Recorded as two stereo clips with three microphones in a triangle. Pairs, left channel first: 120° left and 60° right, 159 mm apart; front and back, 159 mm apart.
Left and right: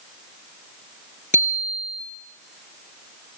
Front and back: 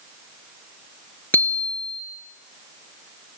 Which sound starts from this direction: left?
A bicycle bell, at 1.3 s.